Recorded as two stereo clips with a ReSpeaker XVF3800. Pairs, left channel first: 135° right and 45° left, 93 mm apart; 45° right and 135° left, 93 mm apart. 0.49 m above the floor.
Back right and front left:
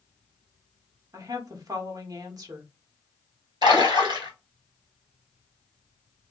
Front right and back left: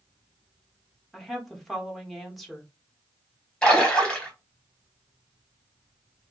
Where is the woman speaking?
45° left, 0.9 m.